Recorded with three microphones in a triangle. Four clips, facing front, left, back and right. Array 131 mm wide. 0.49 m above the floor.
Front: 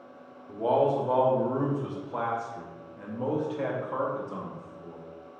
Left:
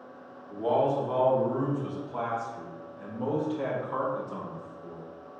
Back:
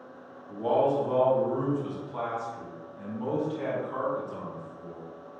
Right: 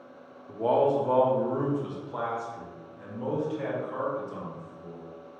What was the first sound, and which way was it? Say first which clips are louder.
A man speaking: right 2 dB, front 1 dB; 60° right.